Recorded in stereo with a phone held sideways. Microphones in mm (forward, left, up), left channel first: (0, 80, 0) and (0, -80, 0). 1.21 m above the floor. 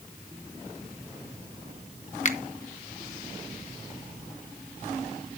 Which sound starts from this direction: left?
A finger snap, at 2.2 s.